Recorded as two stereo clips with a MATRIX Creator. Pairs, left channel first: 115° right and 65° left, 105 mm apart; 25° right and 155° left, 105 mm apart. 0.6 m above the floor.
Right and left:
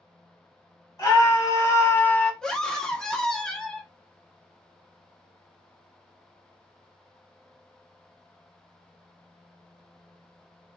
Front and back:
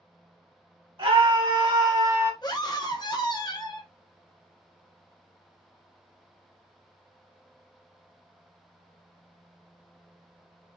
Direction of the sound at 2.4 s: 30° right.